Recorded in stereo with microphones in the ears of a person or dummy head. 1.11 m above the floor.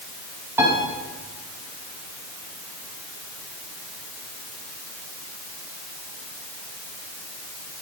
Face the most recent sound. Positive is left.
turn(degrees=-15)  # may be behind; listen again after turning